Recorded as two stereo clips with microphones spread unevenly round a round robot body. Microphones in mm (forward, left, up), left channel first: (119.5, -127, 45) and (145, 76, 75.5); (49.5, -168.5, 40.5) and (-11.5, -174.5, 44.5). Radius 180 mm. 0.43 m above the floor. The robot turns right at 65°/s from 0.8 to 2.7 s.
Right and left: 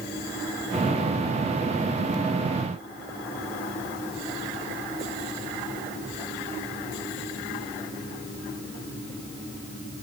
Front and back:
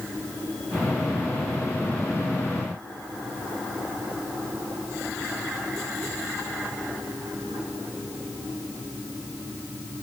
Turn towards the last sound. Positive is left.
No sound to turn to.